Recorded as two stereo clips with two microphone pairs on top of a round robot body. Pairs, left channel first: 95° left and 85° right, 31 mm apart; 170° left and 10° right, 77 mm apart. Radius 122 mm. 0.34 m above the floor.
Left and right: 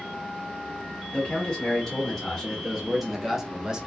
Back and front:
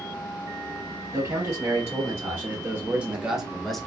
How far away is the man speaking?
About 1.6 m.